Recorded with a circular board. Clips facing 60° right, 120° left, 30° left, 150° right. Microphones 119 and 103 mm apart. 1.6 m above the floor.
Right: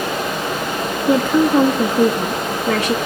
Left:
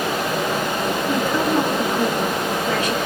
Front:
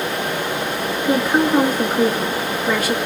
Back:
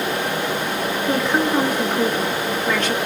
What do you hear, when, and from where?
1.1 s a woman speaking: 50° right, 2.5 m